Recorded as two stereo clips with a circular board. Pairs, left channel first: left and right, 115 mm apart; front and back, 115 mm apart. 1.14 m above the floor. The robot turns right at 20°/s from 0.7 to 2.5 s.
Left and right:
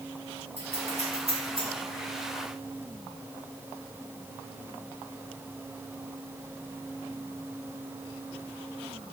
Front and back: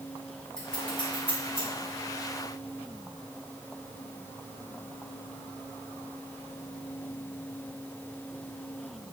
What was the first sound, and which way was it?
Scissors, 85° right.